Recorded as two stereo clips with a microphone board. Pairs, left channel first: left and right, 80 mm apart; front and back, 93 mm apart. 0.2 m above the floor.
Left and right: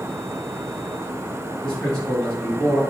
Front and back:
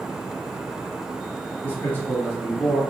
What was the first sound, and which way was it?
A man speaking, 30° left.